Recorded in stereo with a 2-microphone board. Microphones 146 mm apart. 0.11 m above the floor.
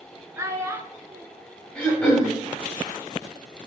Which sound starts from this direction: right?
A child speaking, at 0.4 s.